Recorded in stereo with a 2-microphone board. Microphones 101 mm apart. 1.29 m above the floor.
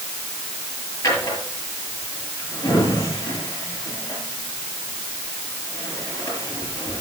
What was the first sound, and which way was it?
A drawer, 35° left (ahead or behind).